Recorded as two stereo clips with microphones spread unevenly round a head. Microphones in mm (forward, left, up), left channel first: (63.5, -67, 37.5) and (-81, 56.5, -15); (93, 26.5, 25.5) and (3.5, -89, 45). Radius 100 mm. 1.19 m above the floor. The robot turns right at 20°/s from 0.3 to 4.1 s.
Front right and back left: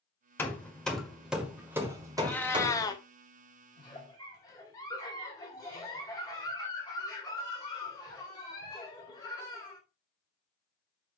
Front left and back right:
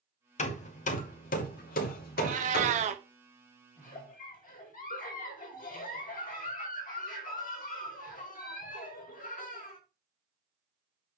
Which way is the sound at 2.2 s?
115° right.